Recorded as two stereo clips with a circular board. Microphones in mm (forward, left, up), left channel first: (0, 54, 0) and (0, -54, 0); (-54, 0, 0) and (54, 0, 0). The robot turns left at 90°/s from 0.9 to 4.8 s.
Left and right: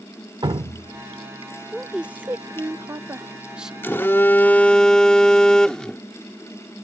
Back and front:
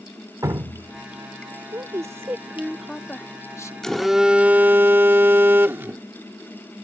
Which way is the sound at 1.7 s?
5° left.